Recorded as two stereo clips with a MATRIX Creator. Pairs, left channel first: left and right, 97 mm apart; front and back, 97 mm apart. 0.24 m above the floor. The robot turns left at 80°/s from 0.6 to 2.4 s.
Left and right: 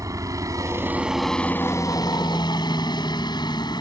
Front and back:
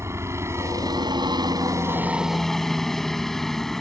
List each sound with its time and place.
0.0 s a helicopter: 130° right; by 3.8 s 85° left